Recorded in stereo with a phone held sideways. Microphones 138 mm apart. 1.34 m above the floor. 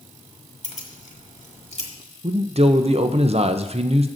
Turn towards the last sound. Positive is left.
turn(degrees=-50)  # may be behind; listen again after turning